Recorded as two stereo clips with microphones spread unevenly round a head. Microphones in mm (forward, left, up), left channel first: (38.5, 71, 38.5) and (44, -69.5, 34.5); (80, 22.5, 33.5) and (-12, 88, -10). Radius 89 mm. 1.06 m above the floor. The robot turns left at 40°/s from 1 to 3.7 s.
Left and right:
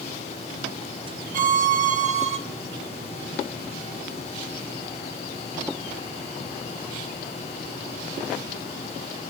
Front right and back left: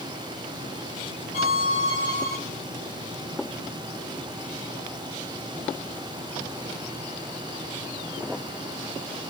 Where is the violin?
90° right, 0.8 m; by 2.4 s 130° right, 0.8 m.